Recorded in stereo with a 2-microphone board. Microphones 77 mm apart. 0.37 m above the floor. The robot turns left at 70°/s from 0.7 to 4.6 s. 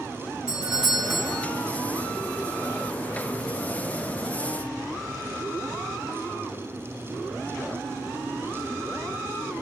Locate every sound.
0.5 s a doorbell: 10° right (ahead or behind), 1.2 m; by 1.5 s 5° left (ahead or behind), 1.2 m